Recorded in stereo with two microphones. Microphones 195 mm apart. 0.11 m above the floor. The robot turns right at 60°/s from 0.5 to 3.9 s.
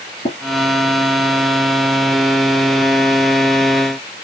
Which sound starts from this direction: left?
Tapping, at 0.2 s.